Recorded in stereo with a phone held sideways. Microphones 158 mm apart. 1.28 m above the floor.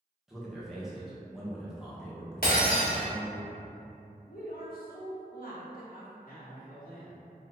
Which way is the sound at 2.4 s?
65° left (ahead or behind).